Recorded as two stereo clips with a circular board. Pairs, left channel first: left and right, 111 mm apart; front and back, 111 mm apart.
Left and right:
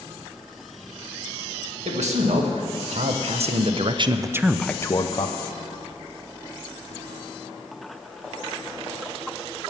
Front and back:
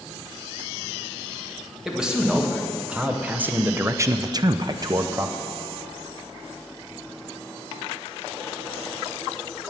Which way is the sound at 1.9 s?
95° right.